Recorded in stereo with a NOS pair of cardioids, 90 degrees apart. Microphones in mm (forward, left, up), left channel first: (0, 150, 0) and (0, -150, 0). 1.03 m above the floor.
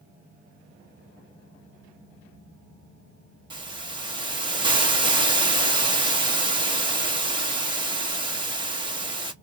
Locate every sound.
3.5 s a hiss: 15° right, 1.0 m